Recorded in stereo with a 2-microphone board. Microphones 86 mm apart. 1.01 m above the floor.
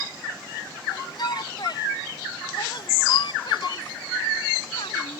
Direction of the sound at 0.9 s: 55° left (ahead or behind).